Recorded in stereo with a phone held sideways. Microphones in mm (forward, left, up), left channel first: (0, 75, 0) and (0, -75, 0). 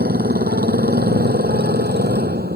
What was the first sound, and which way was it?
A motorcycle, 75° right (ahead or behind).